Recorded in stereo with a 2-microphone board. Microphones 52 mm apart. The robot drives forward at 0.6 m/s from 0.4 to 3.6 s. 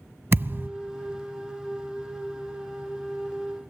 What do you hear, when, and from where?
0.3 s a thud: 45° right (ahead or behind), 0.5 m